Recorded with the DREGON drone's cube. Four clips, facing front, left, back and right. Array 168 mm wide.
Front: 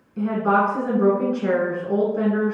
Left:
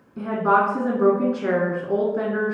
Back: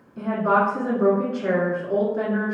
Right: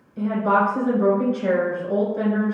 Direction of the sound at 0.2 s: 85° left.